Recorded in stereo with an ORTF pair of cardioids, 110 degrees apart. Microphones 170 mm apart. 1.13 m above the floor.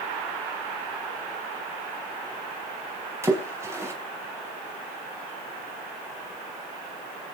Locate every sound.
3.2 s a splash: 15° right, 4.5 m